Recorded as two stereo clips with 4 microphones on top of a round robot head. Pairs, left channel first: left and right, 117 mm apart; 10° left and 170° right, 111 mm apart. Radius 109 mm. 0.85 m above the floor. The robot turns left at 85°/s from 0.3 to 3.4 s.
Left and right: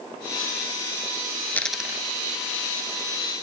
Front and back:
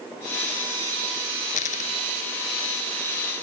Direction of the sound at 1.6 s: 15° left.